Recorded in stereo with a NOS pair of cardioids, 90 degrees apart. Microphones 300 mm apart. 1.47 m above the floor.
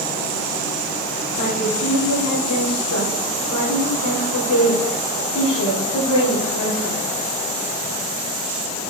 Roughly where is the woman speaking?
Left.